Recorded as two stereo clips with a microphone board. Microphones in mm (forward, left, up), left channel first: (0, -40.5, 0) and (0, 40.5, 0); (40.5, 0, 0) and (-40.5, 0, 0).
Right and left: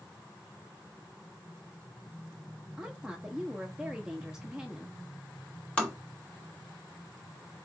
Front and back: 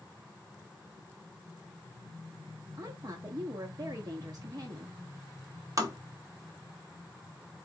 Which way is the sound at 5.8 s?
160° right.